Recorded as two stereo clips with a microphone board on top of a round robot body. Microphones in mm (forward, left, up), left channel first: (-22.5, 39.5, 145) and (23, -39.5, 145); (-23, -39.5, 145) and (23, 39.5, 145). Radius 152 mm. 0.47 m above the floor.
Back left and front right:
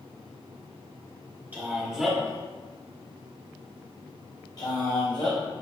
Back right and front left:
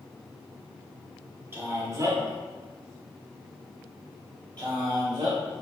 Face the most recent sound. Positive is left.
turn(degrees=95)